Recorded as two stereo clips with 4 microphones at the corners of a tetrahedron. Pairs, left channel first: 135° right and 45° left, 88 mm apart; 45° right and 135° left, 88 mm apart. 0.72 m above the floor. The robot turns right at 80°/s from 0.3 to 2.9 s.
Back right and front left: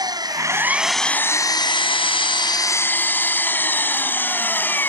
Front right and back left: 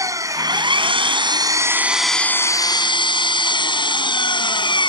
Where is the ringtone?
No ringtone in this recording.